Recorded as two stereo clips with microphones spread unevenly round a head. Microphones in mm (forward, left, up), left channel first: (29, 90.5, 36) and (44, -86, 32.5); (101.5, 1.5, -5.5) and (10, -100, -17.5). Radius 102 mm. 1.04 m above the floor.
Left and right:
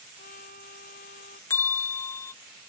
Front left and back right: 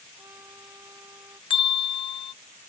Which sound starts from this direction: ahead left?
A bell, at 1.5 s.